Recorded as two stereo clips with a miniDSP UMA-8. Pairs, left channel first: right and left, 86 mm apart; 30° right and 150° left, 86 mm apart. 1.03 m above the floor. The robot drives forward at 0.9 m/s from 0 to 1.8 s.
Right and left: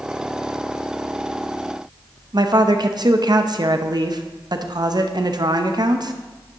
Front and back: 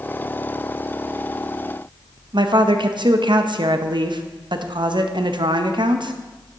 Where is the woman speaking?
125° left, 0.7 m.